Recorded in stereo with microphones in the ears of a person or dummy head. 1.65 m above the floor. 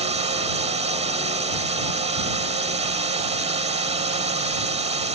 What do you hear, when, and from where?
0.0 s a drone: 25° right (ahead or behind)